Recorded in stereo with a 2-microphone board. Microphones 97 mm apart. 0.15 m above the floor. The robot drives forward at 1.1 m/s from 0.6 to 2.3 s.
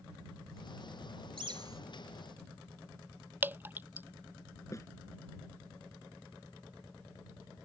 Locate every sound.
1.4 s a bird: 60° right (ahead or behind); by 1.8 s 40° right (ahead or behind)
3.4 s dripping: 20° right (ahead or behind)
4.7 s a snare drum: 35° left (ahead or behind)